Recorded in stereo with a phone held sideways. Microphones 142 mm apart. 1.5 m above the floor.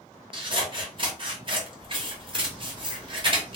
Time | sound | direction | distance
0.3 | scissors | 35° right (ahead or behind) | 0.9 m